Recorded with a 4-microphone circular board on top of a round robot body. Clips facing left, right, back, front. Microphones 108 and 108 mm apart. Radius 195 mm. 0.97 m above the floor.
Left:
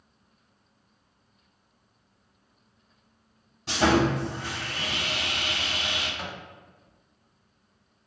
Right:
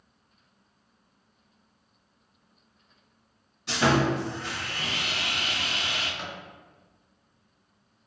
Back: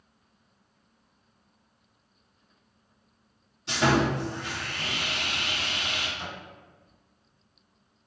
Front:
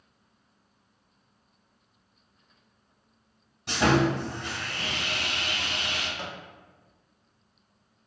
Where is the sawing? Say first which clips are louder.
Left 1 dB, front 1 dB; 40° left, 1.4 m.